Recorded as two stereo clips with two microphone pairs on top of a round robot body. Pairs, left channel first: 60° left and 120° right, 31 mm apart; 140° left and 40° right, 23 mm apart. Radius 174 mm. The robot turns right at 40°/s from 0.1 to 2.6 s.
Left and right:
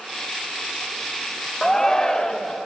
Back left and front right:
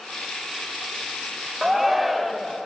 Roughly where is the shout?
Ahead left.